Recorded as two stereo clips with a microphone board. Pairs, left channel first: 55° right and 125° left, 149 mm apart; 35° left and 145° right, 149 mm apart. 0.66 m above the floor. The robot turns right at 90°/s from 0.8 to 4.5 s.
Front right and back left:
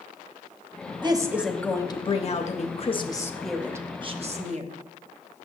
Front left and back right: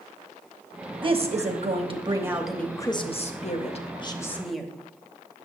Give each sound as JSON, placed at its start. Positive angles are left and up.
{"t": 1.0, "sound": "a woman speaking", "azimuth_deg": 170, "distance_m": 0.8}